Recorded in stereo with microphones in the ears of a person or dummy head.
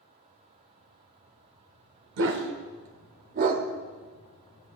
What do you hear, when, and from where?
2.2 s a dog barking: 55° right (ahead or behind), 1.1 m; by 3.6 s 35° right (ahead or behind), 1.1 m